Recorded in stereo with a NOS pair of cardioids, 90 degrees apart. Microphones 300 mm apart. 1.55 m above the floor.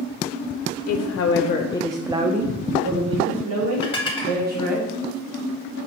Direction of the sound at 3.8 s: 20° left.